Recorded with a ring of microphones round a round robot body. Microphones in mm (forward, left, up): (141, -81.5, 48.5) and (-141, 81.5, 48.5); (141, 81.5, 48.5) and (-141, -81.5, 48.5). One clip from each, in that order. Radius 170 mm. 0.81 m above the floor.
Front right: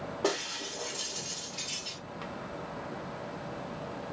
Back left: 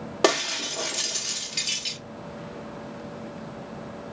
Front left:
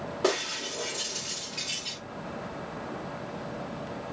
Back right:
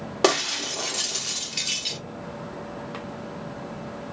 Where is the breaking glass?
160° left, 0.9 m.